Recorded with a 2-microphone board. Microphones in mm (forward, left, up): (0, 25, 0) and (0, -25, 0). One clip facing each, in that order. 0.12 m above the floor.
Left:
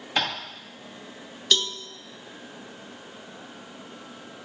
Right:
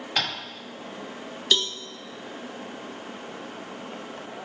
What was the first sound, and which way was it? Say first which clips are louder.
Tapping: left 2 dB; 20° left (ahead or behind).